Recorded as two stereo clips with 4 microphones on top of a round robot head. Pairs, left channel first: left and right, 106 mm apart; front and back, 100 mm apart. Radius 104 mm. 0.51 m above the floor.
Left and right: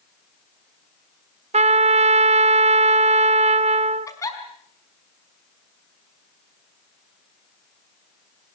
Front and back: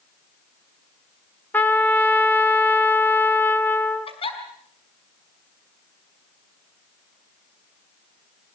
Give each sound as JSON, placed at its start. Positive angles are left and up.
{"t": 1.5, "sound": "a trumpet", "azimuth_deg": -70, "distance_m": 1.1}
{"t": 4.1, "sound": "a giggle", "azimuth_deg": 30, "distance_m": 5.0}